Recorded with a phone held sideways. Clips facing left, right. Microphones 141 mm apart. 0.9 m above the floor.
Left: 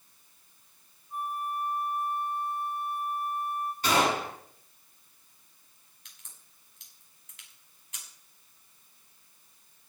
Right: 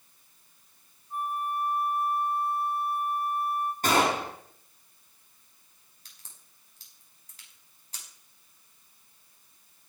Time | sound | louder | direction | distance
1.1 | a flute | right 2 dB | 60° right (ahead or behind) | 2 m
3.8 | a gunshot | right 1 dB | 50° right (ahead or behind) | 7.5 m
6.0 | a crack | right 1 dB | 35° right (ahead or behind) | 5.5 m